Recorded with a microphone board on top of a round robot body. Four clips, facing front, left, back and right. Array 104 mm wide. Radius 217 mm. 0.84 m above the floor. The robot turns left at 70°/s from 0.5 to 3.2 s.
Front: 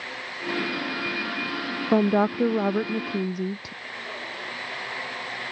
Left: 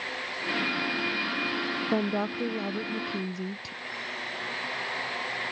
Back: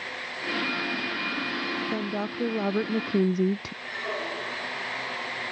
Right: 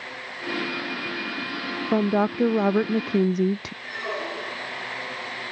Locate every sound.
1.9 s a woman speaking: 20° right; by 3.7 s 110° right
3.8 s a squeak: 115° right